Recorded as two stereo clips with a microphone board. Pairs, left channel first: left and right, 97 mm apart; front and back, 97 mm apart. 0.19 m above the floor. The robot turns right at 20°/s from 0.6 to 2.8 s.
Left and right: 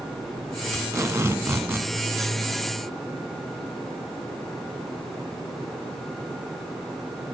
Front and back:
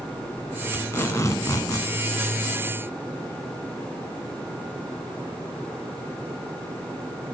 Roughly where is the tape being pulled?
Ahead right.